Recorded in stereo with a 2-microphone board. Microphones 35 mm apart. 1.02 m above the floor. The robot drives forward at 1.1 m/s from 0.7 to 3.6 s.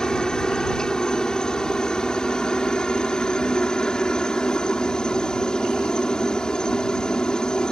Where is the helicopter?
20° left (ahead or behind).